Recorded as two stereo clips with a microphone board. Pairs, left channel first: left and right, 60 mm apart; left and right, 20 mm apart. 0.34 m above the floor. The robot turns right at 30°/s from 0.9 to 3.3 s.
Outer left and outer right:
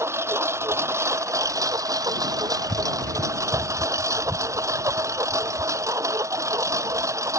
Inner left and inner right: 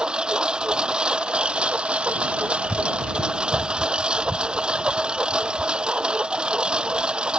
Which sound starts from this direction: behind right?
A lawn mower, at 0.0 s.